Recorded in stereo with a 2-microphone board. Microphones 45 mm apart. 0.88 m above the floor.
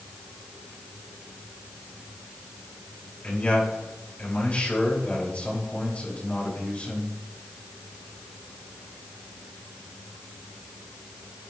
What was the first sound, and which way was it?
A man speaking, 30° left (ahead or behind).